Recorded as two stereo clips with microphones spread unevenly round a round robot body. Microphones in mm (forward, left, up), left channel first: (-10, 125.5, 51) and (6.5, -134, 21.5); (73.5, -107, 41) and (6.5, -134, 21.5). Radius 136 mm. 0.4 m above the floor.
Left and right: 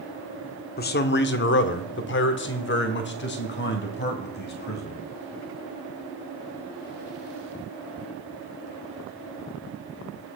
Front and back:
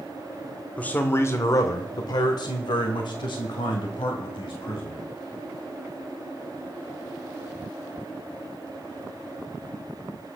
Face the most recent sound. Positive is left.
turn(degrees=40)